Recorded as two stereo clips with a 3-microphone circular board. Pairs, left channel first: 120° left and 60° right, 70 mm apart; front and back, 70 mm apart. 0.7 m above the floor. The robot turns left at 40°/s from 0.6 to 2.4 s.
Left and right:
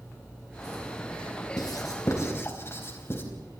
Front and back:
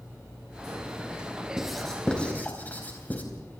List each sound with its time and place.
1.6 s writing: 100° left, 4.5 m; by 3.2 s 65° left, 4.5 m